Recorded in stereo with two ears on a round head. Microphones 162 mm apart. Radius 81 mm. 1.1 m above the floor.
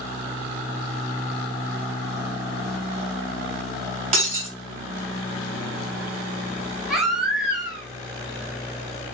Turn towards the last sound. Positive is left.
turn(degrees=0)  # may be behind; listen again after turning